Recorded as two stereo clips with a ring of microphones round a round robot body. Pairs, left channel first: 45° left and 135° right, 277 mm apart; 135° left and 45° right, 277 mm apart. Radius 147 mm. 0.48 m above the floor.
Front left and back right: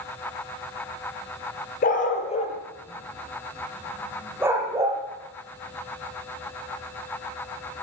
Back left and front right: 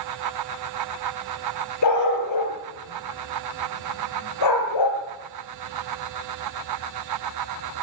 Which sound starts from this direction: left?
A dog barking, at 1.8 s.